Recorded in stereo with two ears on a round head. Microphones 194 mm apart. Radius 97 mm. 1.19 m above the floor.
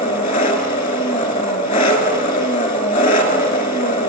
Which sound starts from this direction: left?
An engine running, at 0.0 s.